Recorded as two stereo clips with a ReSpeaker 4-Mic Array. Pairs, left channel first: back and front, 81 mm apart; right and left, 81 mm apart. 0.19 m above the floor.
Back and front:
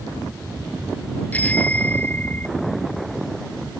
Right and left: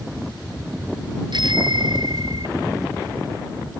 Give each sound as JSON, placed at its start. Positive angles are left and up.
{"t": 1.3, "sound": "a bicycle bell", "azimuth_deg": 110}